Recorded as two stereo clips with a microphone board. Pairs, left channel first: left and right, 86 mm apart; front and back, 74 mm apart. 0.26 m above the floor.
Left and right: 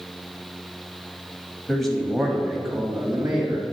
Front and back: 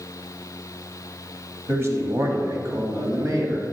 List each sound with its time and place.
1.7 s a man speaking: 175° left, 1.1 m; by 3.6 s 175° right, 2 m